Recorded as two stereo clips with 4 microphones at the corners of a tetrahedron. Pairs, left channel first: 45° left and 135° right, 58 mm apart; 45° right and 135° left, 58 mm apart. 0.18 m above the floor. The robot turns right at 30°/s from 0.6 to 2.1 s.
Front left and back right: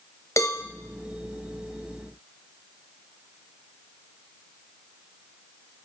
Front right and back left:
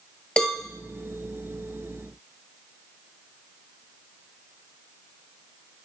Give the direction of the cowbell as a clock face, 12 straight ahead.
11 o'clock.